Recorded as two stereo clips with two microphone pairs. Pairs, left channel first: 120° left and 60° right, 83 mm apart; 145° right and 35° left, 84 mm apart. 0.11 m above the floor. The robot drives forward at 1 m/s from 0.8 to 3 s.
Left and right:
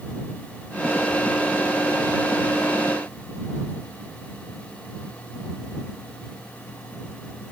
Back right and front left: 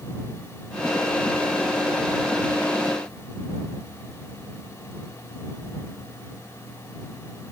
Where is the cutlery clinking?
No cutlery clinking in this recording.